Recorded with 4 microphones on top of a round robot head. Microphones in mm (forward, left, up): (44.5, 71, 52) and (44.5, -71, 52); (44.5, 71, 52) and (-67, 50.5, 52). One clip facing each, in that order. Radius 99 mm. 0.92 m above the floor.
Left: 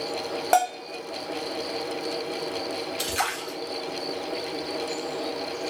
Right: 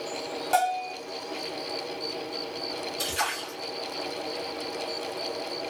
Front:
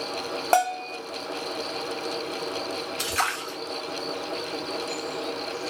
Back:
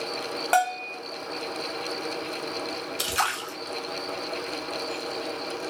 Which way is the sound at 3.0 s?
120° left.